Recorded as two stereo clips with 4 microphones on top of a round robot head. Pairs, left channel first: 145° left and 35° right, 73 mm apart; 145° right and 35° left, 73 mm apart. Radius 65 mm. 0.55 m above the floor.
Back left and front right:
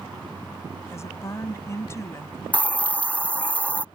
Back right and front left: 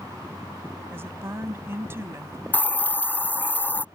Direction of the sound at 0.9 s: 95° left.